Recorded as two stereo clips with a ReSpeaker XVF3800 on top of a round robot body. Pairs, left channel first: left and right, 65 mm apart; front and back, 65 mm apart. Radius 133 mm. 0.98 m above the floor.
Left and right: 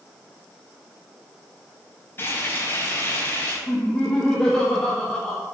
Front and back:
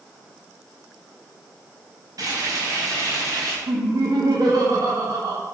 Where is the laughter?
165° left, 2 m.